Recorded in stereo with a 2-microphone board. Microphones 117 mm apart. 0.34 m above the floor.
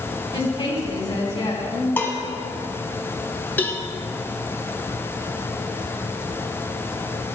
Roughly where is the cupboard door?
I don't hear a cupboard door.